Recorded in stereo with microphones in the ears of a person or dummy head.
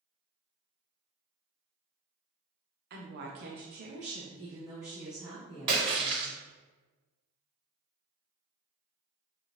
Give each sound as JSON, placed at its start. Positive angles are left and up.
{"t": 2.9, "sound": "a woman speaking", "side_deg": -50, "distance_m": 0.8}
{"t": 5.7, "sound": "a splash", "side_deg": -30, "distance_m": 1.1}